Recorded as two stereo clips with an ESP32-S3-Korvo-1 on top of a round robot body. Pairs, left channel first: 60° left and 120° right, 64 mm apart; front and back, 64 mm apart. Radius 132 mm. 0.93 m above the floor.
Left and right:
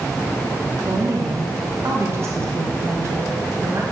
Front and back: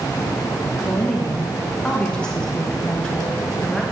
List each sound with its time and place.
0.8 s a woman speaking: 75° right, 1.6 m